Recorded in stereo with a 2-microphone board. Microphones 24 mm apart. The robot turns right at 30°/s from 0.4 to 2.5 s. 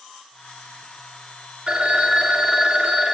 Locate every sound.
1.7 s a phone ringing: 45° right (ahead or behind), 0.8 m; by 3.1 s 30° right (ahead or behind), 0.8 m